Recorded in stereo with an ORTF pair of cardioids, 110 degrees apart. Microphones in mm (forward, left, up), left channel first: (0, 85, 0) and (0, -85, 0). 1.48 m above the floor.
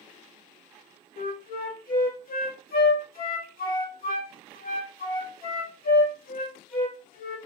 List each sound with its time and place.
1.2 s a flute: 55° left, 2 m